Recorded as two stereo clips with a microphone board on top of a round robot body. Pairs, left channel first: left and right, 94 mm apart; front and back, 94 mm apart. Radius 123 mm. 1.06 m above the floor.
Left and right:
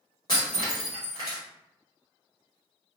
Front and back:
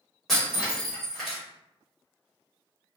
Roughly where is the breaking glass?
Left.